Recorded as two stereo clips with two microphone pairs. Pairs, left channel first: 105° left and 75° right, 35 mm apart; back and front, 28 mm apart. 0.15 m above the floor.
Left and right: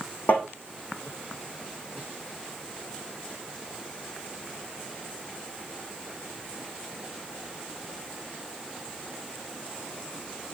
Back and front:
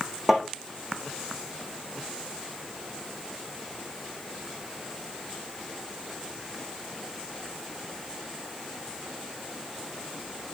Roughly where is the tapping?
Left.